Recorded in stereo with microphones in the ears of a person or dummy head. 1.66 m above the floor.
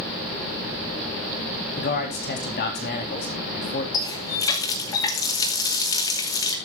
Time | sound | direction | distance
1.8 | a man speaking | 45° left (ahead or behind) | 4 m
3.9 | a running tap | 15° left (ahead or behind) | 1.0 m